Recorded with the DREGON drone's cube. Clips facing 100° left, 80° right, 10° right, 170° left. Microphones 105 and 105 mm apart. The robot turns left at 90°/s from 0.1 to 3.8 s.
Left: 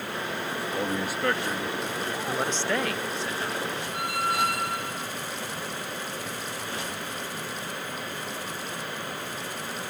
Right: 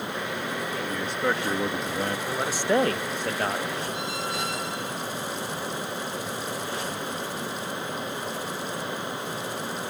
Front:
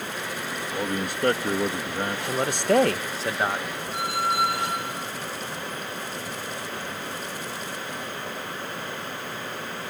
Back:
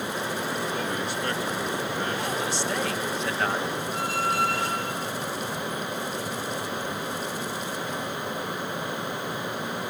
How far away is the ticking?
I don't hear ticking.